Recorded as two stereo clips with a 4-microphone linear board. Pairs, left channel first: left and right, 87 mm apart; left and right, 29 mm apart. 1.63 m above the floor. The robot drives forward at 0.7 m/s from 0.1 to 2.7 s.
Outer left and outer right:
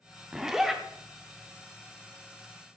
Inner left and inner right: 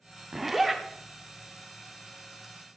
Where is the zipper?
5° right (ahead or behind), 0.6 m.